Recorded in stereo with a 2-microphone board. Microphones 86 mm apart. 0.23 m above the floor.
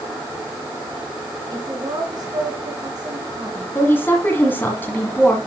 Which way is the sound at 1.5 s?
50° right (ahead or behind).